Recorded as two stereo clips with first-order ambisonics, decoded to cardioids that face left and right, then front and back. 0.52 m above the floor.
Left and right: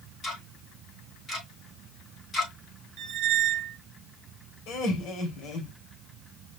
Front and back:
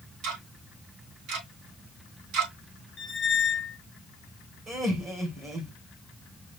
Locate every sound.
0.2 s ticking: 160° left, 3 m
3.0 s a squeak: 60° right, 0.8 m
4.7 s laughter: 115° left, 2.5 m